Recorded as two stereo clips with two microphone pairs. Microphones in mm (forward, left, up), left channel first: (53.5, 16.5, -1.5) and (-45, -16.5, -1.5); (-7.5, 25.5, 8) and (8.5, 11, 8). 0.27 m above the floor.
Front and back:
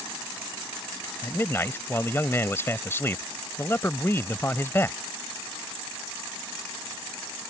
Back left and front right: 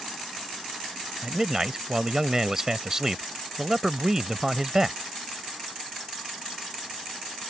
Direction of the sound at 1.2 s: 5° right.